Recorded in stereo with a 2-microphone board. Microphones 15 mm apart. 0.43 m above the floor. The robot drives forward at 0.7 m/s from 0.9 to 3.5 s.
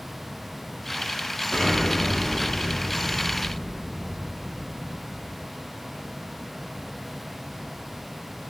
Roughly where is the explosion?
Left.